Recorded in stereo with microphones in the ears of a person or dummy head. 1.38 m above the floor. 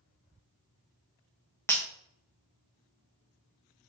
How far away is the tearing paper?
No tearing paper in this recording.